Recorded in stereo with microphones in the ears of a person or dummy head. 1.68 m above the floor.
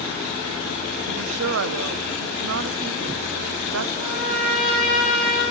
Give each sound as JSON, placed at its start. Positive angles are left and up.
{"t": 1.1, "sound": "a woman speaking", "side_deg": -75, "distance_m": 0.5}
{"t": 4.0, "sound": "a trumpet", "side_deg": -75, "distance_m": 3.0}